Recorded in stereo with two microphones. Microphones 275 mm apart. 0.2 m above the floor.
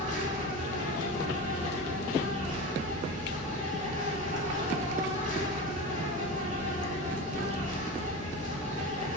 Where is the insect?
30° right (ahead or behind), 0.9 m.